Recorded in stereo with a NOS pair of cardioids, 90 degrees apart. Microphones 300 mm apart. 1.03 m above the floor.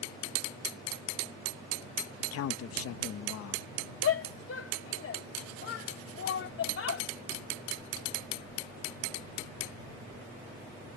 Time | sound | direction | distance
2.2 | a man speaking | 55° left | ?
4.0 | a shout | 50° left | ?